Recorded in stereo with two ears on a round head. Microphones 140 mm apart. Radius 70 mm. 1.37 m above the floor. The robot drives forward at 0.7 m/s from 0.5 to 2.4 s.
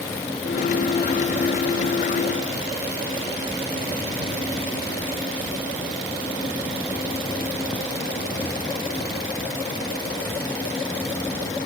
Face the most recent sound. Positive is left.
No sound to turn to.